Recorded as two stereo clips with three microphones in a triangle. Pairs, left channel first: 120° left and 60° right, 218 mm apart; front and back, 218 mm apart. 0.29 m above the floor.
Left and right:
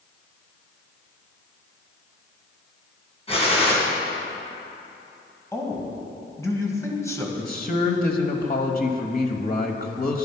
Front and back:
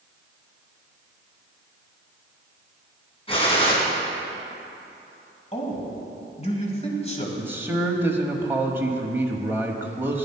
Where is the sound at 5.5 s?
50° left, 2 m.